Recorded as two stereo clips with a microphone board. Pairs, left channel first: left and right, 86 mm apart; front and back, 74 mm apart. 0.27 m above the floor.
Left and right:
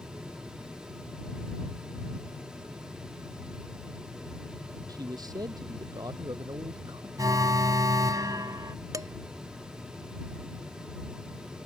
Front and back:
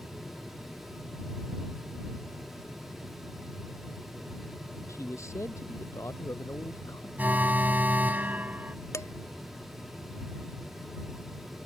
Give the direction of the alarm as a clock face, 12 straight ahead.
4 o'clock.